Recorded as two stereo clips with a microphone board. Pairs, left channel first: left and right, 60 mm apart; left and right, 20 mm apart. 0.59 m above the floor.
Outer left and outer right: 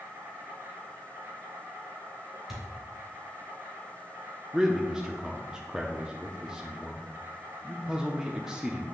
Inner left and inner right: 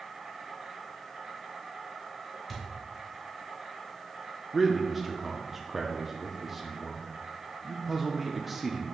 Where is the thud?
5° right (ahead or behind), 2.5 m.